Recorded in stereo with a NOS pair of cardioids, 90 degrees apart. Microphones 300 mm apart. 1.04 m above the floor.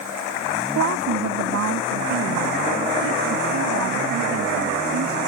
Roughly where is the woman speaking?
Ahead right.